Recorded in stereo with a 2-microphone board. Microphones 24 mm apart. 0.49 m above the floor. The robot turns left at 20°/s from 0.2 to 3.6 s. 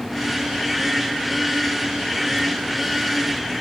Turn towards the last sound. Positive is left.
No sound to turn to.